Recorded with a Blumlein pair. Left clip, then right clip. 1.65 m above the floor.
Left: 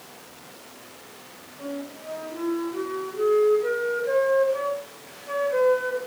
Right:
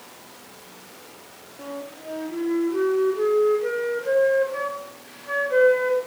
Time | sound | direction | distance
1.6 | a flute | 65° right | 3 m